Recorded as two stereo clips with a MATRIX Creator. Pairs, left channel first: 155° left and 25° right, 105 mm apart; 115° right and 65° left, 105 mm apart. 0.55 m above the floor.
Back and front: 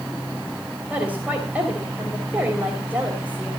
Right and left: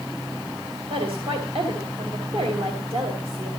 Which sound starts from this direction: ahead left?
A woman speaking, at 0.9 s.